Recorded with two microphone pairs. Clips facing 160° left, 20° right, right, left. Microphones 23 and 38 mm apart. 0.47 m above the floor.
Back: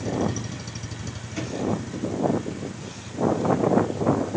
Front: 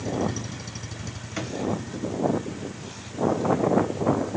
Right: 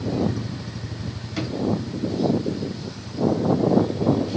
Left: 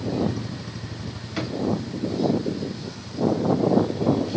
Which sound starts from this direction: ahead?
A drawer, at 1.4 s.